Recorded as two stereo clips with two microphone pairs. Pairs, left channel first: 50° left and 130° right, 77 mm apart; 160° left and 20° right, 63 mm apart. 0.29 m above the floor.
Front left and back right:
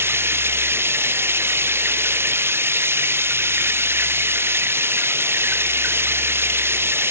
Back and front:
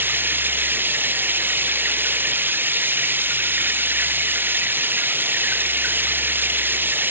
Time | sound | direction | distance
0.0 | running water | 75° right | ?